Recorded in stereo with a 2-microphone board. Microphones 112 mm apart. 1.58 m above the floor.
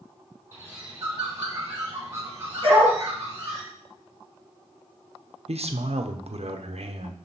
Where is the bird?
30° right (ahead or behind), 4.5 m.